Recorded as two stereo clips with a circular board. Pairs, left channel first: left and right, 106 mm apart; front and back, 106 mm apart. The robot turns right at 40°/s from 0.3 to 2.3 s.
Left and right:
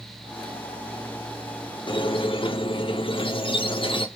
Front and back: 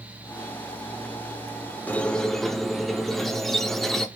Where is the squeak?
70° left, 0.5 m; by 4.1 s 85° left, 0.5 m.